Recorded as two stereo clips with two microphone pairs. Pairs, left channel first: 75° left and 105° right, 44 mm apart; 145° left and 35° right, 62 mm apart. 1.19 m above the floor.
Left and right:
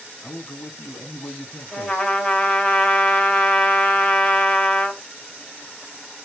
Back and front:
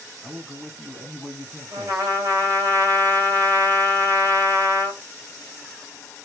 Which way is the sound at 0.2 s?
50° left.